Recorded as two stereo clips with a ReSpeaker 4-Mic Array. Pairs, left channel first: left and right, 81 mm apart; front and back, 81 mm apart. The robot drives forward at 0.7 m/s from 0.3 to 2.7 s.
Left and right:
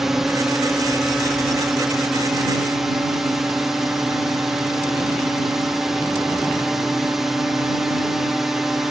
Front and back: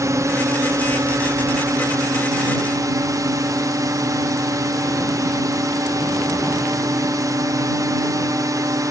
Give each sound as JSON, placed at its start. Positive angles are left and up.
{"t": 0.0, "sound": "a drone", "azimuth_deg": -175}